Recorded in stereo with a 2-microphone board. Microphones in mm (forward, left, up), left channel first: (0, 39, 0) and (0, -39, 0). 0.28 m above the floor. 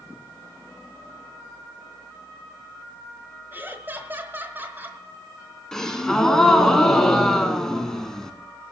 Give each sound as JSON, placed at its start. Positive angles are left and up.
{"t": 3.5, "sound": "laughter", "side_deg": -25, "distance_m": 1.3}
{"t": 5.7, "sound": "a gasp", "side_deg": 10, "distance_m": 1.3}